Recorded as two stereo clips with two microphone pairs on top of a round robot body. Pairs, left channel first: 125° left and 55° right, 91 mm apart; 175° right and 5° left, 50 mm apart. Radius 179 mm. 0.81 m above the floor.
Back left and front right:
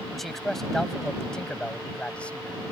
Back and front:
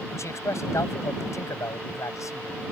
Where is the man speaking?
145° right; by 2.7 s 160° right.